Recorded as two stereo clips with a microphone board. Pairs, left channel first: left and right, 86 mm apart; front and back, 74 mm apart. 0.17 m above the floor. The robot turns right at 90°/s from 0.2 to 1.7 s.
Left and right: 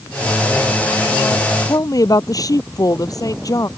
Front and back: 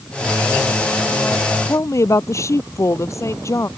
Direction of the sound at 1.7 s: 45° left.